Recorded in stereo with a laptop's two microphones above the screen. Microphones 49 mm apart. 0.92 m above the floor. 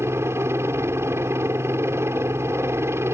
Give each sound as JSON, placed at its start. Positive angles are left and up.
{"t": 0.0, "sound": "a helicopter", "side_deg": -60}